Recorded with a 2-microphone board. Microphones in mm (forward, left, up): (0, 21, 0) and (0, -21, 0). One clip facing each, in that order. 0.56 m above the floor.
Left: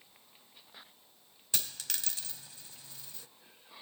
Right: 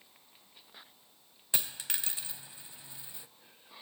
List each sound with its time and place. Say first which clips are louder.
1.5 s a dropped coin: right 2 dB; 20° right (ahead or behind), 0.7 m